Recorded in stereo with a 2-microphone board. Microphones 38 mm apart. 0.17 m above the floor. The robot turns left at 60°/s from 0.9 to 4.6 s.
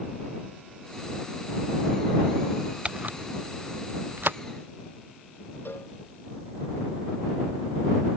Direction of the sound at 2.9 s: 35° right (ahead or behind).